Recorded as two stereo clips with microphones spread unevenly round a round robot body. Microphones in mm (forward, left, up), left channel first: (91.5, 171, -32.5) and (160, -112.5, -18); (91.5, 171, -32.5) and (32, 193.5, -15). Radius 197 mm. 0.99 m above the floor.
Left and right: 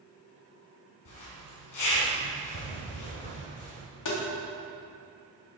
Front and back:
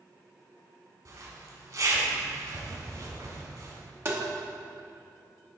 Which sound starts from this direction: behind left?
A zipper, at 1.1 s.